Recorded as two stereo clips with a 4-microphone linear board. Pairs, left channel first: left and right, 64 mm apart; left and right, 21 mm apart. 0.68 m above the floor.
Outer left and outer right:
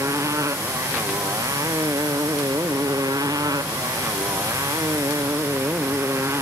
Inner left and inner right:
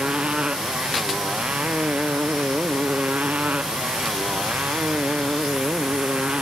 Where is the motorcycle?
55° right (ahead or behind); by 6.4 s 50° right (ahead or behind).